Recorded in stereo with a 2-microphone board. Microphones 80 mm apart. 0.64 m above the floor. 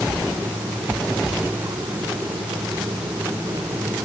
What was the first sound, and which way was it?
Only background noise.